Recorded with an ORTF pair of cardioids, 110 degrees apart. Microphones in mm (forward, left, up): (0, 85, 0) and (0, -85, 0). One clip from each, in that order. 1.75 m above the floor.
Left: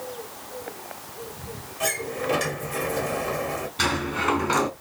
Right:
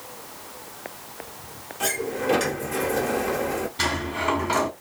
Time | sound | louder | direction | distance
1.8 | a sliding door | right 1 dB | 20° right | 1.0 m
3.8 | a sliding door | left 2 dB | straight ahead | 1.0 m